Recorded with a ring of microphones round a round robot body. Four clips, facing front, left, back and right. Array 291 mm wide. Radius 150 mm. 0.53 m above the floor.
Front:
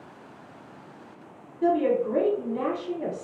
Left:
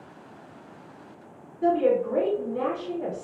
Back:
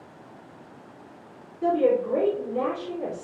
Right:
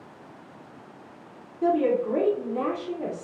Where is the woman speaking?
70° right, 1.8 m.